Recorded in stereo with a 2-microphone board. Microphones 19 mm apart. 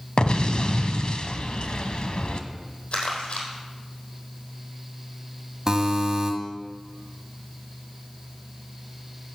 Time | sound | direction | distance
0.2 | an explosion | 60° left (ahead or behind) | 0.9 m
2.9 | crumpling | 75° left (ahead or behind) | 4 m
5.7 | a buzzer | 30° right (ahead or behind) | 1.6 m